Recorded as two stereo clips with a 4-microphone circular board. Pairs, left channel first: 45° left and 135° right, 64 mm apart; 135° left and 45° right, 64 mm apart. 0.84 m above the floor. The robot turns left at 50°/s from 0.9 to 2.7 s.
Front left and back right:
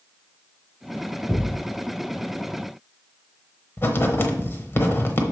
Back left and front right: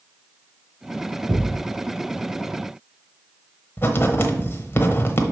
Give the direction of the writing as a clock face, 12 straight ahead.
9 o'clock.